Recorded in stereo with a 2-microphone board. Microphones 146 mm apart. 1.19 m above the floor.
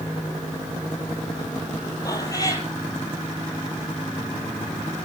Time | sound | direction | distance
2.0 | a cat meowing | 25° left (ahead or behind) | 4 m